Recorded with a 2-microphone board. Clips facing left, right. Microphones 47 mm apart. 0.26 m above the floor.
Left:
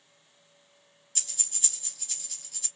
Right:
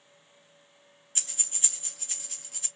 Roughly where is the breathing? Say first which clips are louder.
Right 2 dB; right.